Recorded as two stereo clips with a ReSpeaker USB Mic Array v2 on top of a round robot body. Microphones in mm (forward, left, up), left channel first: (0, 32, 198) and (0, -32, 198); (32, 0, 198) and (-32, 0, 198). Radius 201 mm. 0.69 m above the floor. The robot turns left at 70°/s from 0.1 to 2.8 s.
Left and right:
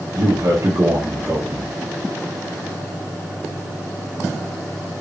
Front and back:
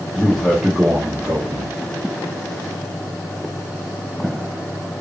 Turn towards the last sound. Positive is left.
turn(degrees=95)